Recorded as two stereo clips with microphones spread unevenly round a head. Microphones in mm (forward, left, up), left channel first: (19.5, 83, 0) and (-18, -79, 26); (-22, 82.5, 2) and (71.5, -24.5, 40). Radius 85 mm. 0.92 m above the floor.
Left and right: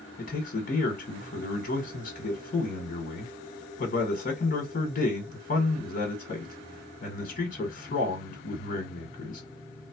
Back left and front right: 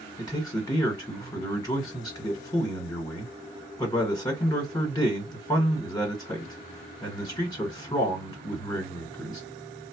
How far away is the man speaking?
About 1.4 m.